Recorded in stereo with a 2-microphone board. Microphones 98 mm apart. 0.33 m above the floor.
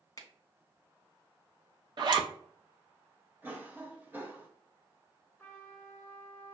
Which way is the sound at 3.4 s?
20° right (ahead or behind).